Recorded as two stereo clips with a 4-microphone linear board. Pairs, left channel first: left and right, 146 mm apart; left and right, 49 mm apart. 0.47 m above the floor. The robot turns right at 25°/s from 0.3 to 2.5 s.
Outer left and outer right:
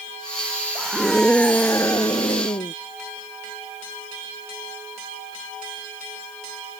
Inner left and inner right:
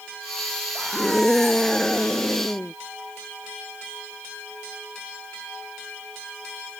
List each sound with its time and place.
0.8 s a scream: 5° right; by 2.7 s 35° left